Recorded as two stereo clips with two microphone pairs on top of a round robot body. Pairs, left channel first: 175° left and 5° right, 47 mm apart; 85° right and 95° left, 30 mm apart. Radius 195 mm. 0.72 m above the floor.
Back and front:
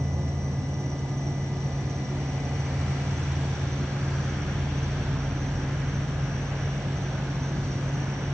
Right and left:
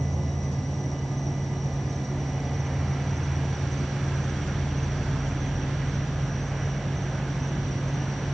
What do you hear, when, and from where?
0.0 s an insect: 5° right